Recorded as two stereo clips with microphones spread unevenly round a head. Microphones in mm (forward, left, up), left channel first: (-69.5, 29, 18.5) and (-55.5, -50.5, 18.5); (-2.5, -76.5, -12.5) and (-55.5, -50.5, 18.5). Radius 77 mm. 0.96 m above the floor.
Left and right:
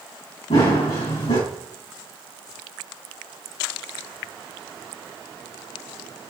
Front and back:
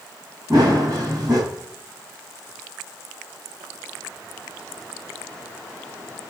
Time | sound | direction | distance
0.5 | running footsteps | 85° left | 5.5 m